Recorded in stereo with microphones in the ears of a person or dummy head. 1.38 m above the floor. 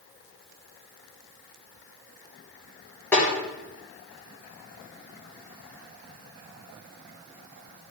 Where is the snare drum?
5° left (ahead or behind), 4.5 m.